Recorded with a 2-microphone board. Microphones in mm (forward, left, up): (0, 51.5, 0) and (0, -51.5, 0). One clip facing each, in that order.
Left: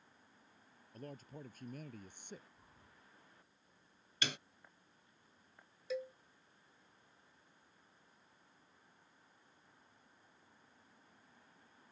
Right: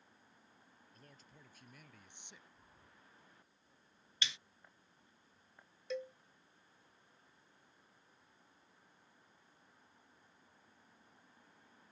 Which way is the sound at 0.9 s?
50° left (ahead or behind).